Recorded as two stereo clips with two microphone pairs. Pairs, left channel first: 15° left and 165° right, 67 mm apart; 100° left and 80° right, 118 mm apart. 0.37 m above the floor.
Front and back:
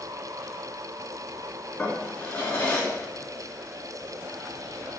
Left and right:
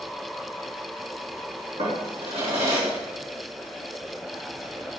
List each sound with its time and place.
1.8 s a drawer: 55° right, 2.5 m